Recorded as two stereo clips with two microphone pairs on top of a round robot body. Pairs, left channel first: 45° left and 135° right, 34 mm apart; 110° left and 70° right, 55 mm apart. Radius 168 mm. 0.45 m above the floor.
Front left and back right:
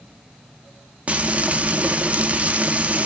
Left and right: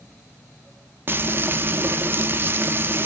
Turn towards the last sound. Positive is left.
turn(degrees=-115)